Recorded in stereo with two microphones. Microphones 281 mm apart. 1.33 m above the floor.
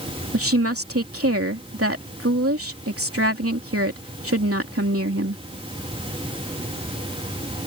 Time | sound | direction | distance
0.3 | a woman speaking | 55° right (ahead or behind) | ?